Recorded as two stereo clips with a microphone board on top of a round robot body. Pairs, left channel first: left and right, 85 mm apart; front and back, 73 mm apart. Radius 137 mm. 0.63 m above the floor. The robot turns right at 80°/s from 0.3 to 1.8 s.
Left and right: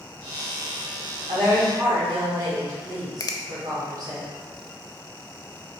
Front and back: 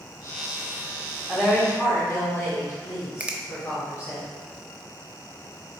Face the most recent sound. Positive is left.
turn(degrees=115)